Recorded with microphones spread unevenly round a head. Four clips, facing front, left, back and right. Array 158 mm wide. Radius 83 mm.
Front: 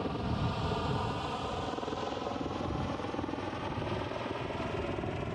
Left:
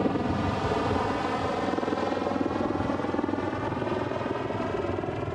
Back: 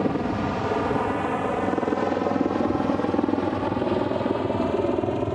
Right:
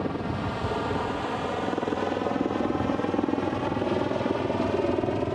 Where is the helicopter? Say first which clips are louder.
Left 3 dB, back 11 dB; 160° left; by 5.3 s 150° right.